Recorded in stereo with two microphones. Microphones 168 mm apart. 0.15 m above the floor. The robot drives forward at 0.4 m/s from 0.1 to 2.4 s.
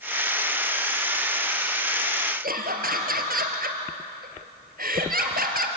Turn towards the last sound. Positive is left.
turn(degrees=-60)  # may be behind; listen again after turning